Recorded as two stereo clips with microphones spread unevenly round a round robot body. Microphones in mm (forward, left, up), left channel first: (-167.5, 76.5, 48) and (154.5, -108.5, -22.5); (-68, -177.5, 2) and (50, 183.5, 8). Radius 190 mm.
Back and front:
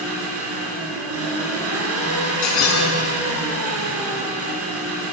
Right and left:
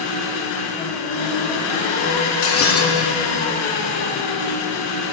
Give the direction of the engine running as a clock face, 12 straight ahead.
3 o'clock.